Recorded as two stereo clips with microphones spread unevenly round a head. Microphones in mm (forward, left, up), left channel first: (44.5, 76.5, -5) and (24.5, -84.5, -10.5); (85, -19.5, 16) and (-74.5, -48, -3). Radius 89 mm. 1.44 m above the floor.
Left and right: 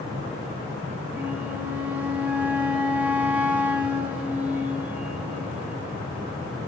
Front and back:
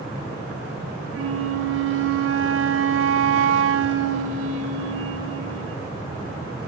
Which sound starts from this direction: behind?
A flute, at 1.1 s.